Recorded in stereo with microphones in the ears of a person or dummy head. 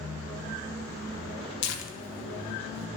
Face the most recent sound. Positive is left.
turn(degrees=60)  # may be behind; listen again after turning